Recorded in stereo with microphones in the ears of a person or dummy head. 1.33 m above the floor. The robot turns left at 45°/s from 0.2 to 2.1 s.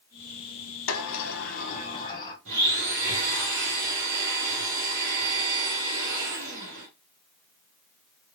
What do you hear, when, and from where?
0.9 s a sliding door: 80° left, 0.8 m; by 2.4 s 25° left, 0.8 m
2.5 s a blender: 65° right (ahead or behind), 1.6 m